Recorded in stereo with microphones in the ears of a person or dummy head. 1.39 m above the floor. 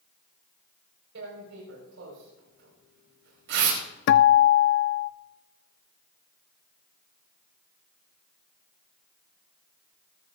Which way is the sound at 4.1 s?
60° left (ahead or behind).